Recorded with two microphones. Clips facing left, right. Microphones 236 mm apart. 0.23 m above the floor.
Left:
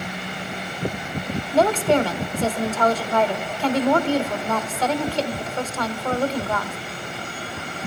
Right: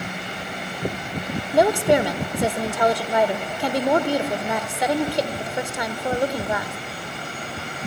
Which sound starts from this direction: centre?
A woman speaking, at 1.5 s.